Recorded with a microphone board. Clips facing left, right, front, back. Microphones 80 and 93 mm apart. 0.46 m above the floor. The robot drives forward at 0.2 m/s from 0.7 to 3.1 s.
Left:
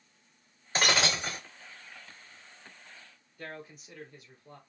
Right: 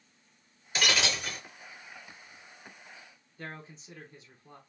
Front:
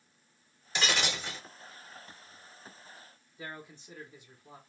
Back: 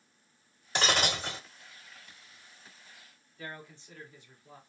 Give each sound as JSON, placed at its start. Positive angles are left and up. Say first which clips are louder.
{"t": 0.8, "sound": "breaking glass", "louder": "left 2 dB, back 3 dB", "azimuth_deg": 140, "distance_m": 0.7}
{"t": 3.4, "sound": "a man speaking", "louder": "even, even", "azimuth_deg": -55, "distance_m": 1.2}